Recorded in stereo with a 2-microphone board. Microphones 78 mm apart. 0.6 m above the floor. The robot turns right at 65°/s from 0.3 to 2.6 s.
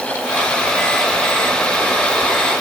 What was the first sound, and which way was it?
Only background noise.